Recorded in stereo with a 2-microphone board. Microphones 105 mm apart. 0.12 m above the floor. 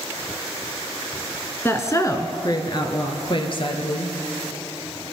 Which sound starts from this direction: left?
A woman speaking, at 1.6 s.